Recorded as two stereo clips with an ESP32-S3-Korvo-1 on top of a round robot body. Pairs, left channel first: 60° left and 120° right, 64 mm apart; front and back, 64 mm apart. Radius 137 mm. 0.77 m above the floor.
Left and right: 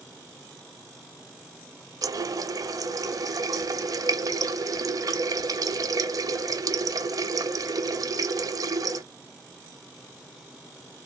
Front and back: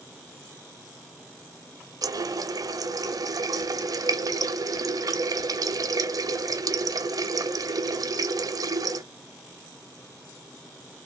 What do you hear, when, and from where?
2.0 s a running tap: 150° right, 0.6 m